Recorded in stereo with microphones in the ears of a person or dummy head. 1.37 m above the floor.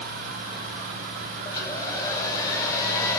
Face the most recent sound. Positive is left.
turn(degrees=20)  # may be behind; listen again after turning